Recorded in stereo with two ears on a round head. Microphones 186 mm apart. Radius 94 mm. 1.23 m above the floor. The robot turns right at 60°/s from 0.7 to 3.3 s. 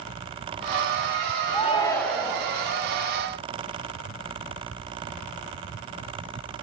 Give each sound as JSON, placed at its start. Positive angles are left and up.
{"t": 1.5, "sound": "a shout", "azimuth_deg": 140, "distance_m": 2.0}